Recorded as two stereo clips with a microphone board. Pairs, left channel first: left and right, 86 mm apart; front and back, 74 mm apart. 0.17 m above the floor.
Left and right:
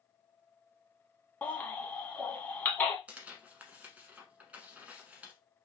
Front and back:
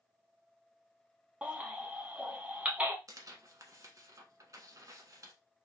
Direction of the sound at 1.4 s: 130° left.